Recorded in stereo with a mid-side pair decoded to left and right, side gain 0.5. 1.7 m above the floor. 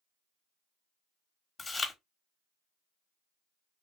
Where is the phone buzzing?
No phone buzzing in this recording.